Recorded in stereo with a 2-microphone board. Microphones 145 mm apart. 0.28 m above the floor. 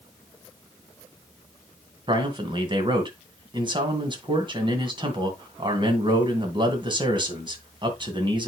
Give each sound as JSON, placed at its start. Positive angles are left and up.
{"t": 2.1, "sound": "a man speaking", "side_deg": -35, "distance_m": 2.5}